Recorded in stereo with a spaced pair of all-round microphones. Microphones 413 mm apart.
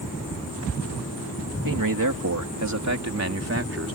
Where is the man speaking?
55° right (ahead or behind); by 4.0 s 30° right (ahead or behind).